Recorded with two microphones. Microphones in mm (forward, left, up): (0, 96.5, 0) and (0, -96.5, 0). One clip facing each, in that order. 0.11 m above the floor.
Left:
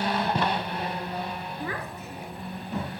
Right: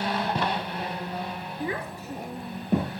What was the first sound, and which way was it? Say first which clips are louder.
A child speaking: right 6 dB; 15° right (ahead or behind).